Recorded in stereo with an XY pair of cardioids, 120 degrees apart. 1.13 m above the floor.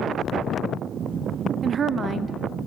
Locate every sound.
1.6 s a woman speaking: 40° right, 0.8 m